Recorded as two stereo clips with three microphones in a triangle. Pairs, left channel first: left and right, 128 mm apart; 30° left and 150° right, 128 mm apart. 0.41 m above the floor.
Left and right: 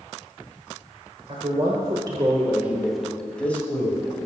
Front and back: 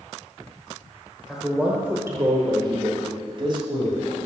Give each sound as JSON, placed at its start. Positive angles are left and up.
{"t": 1.3, "sound": "a man speaking", "azimuth_deg": -65, "distance_m": 1.3}